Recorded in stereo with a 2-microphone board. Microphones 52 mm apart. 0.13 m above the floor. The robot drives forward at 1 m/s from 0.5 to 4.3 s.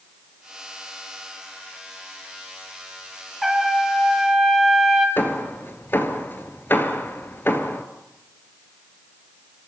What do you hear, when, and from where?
3.4 s a trumpet: centre (ahead or behind), 3 m
5.2 s hammering: 45° left (ahead or behind), 2.0 m